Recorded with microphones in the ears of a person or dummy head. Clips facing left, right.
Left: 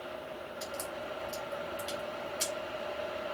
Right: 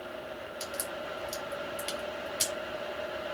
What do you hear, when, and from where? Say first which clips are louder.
0.6 s a crack: right 1 dB; 45° right (ahead or behind), 2 m